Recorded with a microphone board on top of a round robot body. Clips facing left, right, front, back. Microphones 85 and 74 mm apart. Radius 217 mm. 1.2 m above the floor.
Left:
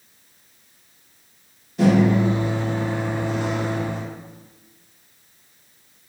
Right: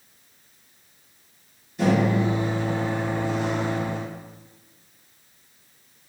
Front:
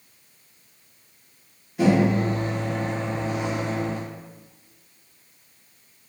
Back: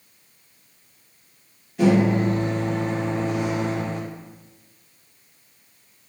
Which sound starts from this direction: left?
A microwave, at 1.8 s.